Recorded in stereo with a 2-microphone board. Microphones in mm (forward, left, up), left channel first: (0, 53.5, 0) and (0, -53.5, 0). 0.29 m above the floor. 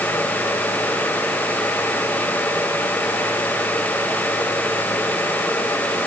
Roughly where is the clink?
I don't hear a clink.